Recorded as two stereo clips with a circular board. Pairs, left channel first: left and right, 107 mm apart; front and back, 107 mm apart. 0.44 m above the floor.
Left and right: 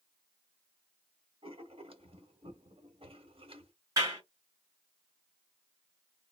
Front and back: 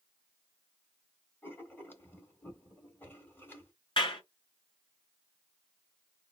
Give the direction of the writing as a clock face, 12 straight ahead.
2 o'clock.